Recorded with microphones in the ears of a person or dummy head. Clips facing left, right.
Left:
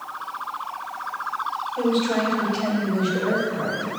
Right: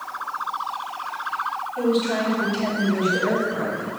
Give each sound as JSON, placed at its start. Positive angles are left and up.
{"t": 1.8, "sound": "a woman speaking", "side_deg": 5, "distance_m": 1.7}